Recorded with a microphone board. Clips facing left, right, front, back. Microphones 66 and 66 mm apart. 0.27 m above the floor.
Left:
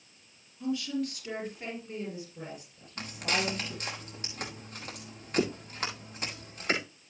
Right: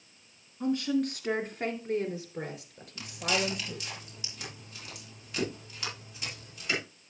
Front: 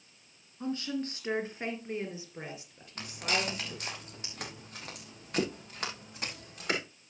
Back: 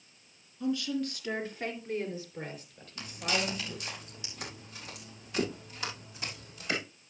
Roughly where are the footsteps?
Ahead left.